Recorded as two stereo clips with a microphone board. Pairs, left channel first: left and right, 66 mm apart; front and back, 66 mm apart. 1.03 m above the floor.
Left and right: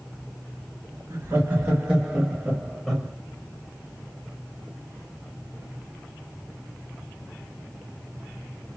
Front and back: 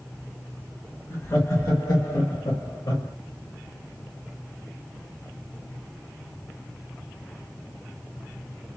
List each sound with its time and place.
1.1 s laughter: 35° right, 1.6 m; by 3.1 s 5° left, 1.1 m